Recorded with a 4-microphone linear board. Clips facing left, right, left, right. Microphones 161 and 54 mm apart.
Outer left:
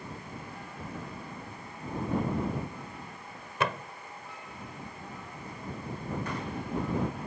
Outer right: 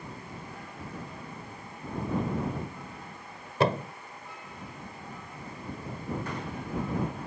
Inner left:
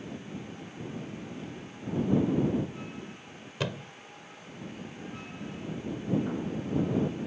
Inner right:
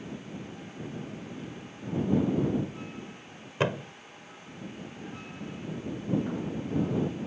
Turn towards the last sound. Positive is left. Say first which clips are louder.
# outer right 6 dB, inner right 6 dB
turn(degrees=-30)  # may be behind; listen again after turning